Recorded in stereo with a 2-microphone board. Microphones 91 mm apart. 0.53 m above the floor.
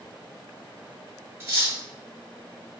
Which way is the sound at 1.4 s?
25° right (ahead or behind).